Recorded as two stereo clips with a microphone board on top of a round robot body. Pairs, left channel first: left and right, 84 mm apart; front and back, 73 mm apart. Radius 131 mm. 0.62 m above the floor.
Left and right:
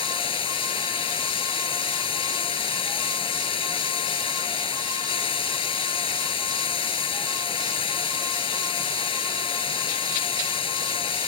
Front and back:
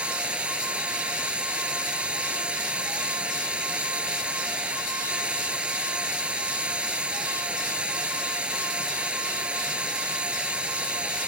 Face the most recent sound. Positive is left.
turn(degrees=100)